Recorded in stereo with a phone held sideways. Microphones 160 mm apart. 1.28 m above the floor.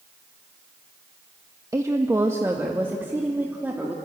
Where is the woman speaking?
20° right (ahead or behind), 1.2 m; by 4.0 s 10° right (ahead or behind), 2.5 m.